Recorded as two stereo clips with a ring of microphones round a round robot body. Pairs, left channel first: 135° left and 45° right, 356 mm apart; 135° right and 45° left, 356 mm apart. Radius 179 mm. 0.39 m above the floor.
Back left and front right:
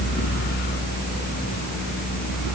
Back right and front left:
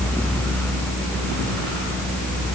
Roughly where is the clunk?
No clunk in this recording.